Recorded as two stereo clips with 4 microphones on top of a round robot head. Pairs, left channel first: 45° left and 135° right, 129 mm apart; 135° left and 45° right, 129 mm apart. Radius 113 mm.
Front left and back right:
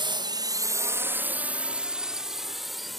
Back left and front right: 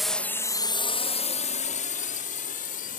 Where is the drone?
135° right; by 3.0 s 135° left.